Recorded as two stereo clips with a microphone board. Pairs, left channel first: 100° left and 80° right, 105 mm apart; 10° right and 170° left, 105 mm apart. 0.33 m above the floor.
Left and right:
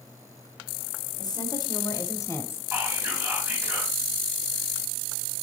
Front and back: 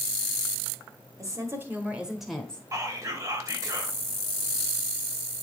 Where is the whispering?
140° right, 1.5 m.